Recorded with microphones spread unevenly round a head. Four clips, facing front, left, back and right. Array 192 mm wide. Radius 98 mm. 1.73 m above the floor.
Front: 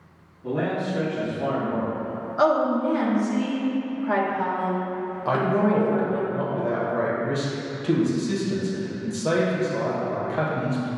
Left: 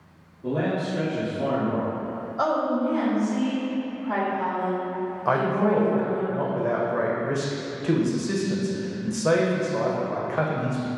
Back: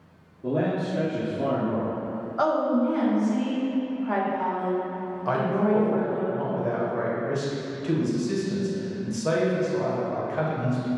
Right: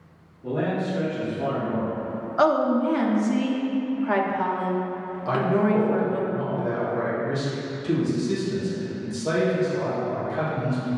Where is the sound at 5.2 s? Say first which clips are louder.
Even, front 2 dB; 60° left, 0.9 m.